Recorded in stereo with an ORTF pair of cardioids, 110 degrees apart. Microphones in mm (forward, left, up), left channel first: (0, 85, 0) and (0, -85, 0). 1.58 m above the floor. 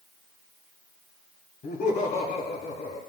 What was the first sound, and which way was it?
Laughter, 55° left.